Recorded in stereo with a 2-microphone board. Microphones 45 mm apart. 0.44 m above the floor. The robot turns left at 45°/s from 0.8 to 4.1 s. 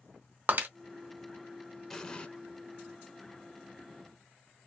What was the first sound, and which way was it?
Breaking glass, 50° right (ahead or behind).